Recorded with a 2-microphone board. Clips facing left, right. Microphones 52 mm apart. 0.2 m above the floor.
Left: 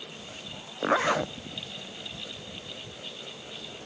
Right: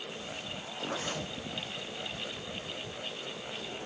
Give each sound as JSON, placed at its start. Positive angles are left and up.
{"t": 0.8, "sound": "a zipper", "side_deg": 80}